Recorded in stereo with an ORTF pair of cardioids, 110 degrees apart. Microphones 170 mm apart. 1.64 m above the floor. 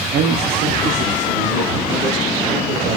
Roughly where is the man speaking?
Right.